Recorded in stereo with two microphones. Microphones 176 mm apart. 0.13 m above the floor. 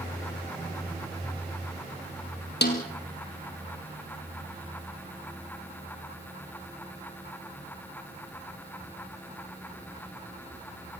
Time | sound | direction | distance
2.6 | a snare drum | 70° left (ahead or behind) | 3 m